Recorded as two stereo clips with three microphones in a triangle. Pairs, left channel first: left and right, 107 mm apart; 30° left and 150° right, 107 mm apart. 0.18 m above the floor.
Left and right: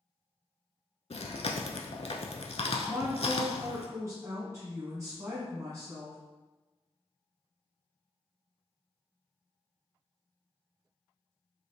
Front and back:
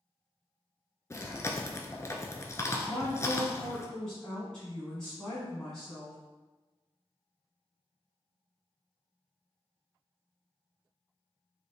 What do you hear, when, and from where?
1.1 s chewing: 90° left, 0.5 m
2.9 s a woman speaking: 50° right, 1.3 m